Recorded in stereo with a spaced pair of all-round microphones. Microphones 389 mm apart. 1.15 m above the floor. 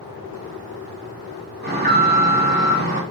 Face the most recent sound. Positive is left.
turn(degrees=-25)  # may be behind; listen again after turning